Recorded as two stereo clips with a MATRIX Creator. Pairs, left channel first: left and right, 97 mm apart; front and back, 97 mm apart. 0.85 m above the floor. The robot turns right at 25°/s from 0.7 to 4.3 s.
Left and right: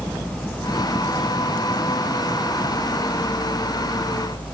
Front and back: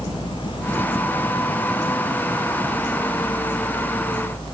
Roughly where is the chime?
No chime in this recording.